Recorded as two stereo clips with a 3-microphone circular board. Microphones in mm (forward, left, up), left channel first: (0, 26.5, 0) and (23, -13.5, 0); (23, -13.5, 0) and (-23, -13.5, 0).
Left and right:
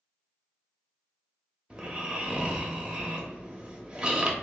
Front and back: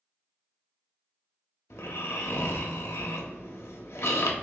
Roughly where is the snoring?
Ahead.